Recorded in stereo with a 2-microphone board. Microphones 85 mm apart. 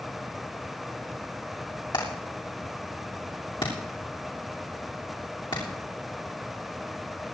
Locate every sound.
1.9 s hammering: 70° left (ahead or behind), 6.5 m